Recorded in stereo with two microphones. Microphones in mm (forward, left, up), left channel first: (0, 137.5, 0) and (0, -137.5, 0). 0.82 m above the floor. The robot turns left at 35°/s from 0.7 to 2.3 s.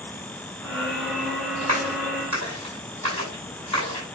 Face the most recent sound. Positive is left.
turn(degrees=-85)